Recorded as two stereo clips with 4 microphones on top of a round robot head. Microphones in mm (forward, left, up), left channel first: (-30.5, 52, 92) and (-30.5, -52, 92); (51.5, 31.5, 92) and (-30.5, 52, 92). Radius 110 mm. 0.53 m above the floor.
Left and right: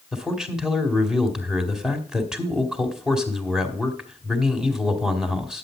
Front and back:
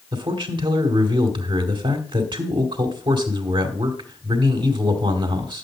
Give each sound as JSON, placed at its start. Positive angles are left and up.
{"t": 0.1, "sound": "a man speaking", "azimuth_deg": -175, "distance_m": 2.5}